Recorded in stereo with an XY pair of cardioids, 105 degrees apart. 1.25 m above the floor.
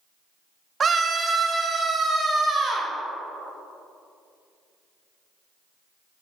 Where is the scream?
40° right, 0.7 m; by 2.9 s 35° right, 2.5 m.